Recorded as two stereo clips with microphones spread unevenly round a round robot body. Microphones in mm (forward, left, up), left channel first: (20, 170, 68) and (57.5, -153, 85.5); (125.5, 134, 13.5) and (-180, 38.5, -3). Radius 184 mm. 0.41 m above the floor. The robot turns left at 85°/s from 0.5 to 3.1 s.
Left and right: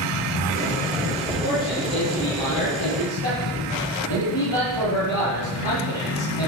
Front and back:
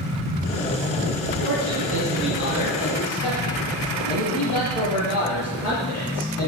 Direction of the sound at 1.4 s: 165° right.